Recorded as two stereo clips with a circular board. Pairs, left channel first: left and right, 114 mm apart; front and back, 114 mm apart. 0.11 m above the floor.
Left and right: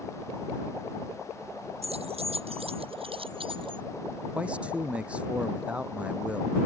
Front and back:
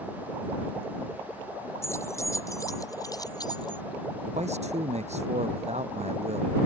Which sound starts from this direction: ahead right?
Keys jangling, at 1.8 s.